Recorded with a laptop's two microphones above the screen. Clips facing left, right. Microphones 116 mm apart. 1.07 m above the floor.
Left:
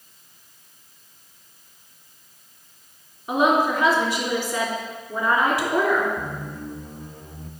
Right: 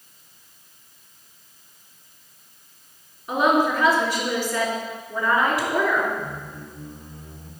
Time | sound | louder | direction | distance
3.3 | a woman speaking | even | 25° left (ahead or behind) | 3 m
6.2 | a squeak | left 2 dB | 55° left (ahead or behind) | 0.7 m